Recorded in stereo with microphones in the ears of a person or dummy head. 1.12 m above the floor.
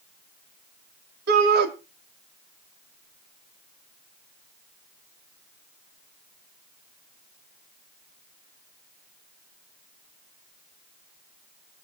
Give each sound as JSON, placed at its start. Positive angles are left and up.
{"t": 1.3, "sound": "a shout", "side_deg": -55, "distance_m": 2.5}